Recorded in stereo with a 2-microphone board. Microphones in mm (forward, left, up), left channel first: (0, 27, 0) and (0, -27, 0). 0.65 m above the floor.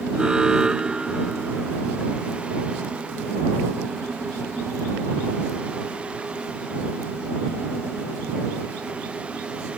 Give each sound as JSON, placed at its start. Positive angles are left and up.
{"t": 0.1, "sound": "an alarm", "side_deg": -15}